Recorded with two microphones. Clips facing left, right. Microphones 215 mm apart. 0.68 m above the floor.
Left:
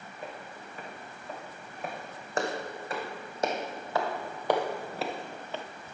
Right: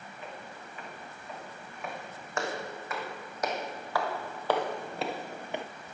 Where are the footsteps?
40° left (ahead or behind), 4 m; by 5.7 s 20° right (ahead or behind), 0.9 m.